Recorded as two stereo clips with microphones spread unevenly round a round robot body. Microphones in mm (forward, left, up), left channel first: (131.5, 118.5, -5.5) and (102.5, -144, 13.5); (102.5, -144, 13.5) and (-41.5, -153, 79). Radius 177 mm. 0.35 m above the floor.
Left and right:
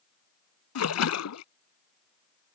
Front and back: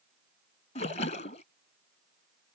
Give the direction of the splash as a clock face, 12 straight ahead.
10 o'clock.